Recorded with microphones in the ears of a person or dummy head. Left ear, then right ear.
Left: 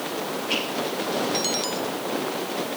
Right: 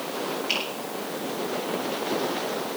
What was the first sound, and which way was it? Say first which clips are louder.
A finger snap: left 1 dB; 80° right.